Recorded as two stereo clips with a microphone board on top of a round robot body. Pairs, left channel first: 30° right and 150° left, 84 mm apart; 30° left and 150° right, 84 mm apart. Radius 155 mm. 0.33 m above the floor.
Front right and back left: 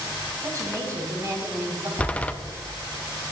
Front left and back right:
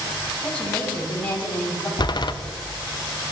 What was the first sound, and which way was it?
A woman speaking, 100° left.